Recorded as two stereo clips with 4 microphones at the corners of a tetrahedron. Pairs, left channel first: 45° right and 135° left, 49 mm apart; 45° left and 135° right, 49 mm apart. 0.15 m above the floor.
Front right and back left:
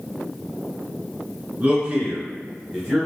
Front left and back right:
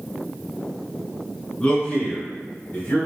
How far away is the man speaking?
About 1.5 m.